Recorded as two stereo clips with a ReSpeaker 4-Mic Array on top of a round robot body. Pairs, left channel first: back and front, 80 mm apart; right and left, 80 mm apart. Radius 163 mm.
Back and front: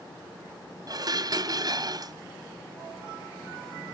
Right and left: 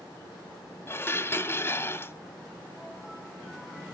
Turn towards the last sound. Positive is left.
turn(degrees=-30)